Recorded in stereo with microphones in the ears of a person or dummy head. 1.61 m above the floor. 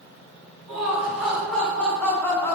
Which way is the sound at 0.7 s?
10° right (ahead or behind).